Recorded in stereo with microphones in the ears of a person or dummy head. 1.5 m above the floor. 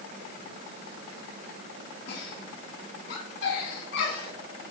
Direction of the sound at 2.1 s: 70° left (ahead or behind).